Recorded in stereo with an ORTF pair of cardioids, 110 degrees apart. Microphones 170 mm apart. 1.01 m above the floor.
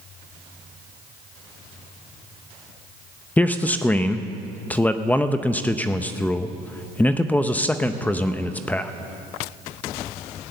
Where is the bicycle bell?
I don't hear a bicycle bell.